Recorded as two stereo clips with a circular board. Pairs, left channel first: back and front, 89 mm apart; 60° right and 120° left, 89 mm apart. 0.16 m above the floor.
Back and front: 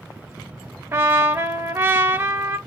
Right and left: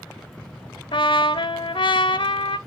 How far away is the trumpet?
About 0.6 m.